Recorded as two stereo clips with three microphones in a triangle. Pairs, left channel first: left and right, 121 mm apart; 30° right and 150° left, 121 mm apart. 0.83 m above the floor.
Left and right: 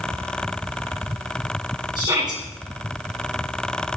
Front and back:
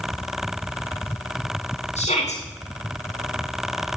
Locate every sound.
1.9 s a shout: 35° right, 10 m